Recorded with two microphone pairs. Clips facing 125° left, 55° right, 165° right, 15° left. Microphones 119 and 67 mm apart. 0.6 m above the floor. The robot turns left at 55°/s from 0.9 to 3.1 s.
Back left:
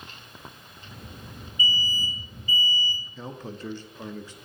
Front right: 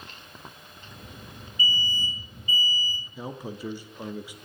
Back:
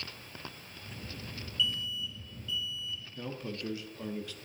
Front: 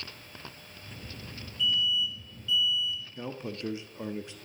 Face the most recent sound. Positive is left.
turn(degrees=0)